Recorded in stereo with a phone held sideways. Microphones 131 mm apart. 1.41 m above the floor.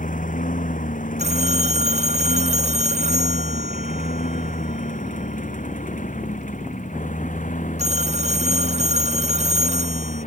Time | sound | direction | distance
0.0 | a lawn mower | 85° left | ?
1.2 | a phone ringing | 60° right (ahead or behind) | ?